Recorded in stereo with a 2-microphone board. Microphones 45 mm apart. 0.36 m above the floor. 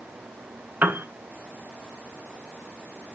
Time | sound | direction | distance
0.8 | a piano | 50° right (ahead or behind) | 0.6 m